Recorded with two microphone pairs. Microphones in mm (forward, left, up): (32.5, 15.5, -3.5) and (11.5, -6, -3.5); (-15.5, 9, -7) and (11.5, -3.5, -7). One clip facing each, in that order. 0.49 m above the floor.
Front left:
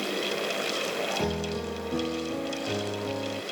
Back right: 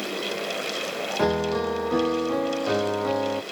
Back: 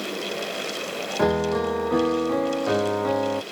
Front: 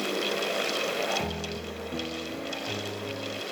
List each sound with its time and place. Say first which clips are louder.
1.2 s a piano: back right 7 dB, back 12 dB; 175° left